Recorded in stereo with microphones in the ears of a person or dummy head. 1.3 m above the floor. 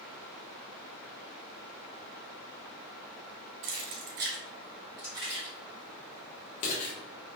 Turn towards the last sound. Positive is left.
turn(degrees=50)  # may be behind; listen again after turning